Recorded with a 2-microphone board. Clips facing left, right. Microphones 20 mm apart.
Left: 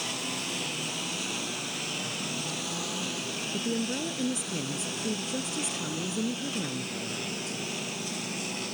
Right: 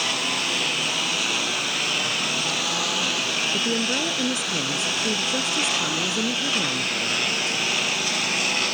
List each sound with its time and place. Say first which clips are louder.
0.0 s a lawn mower: right 9 dB; 40° right (ahead or behind); by 8.7 s 50° right (ahead or behind)
3.5 s a woman speaking: right 8 dB; 35° right (ahead or behind)